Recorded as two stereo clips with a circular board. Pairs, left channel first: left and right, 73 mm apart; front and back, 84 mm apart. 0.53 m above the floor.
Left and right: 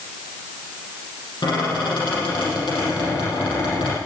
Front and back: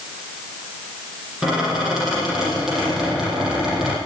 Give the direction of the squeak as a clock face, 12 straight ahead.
9 o'clock.